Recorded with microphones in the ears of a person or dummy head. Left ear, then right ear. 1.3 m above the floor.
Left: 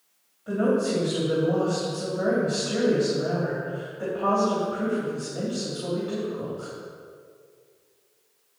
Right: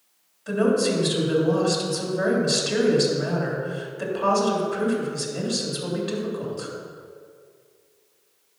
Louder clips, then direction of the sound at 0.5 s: Right 3 dB; 85° right.